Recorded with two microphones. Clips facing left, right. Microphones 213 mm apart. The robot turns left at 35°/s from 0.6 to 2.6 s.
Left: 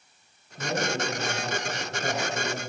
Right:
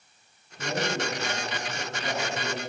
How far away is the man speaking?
About 3 m.